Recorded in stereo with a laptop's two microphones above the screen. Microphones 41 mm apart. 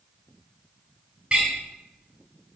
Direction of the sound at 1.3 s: 20° right (ahead or behind).